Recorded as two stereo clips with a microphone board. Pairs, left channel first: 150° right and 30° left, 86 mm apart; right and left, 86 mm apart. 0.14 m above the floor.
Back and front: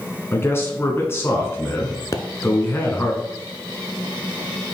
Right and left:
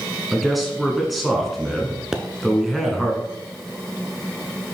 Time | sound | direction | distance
0.3 | a man speaking | straight behind | 1.2 m
2.1 | a pop | 170° left | 0.6 m